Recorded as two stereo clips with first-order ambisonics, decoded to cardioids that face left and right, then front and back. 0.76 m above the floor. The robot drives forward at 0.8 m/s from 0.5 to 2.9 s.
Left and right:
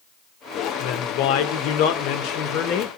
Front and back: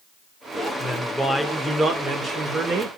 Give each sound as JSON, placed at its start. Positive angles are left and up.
{"t": 0.8, "sound": "a woman speaking", "azimuth_deg": 70, "distance_m": 1.8}